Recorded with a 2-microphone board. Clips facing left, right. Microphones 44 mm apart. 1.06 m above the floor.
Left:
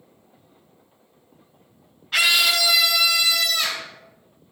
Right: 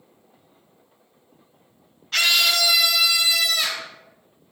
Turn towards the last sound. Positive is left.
turn(degrees=-5)  # may be behind; listen again after turning